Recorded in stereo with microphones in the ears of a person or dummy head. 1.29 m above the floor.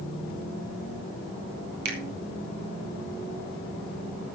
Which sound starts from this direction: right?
A finger snap, at 1.9 s.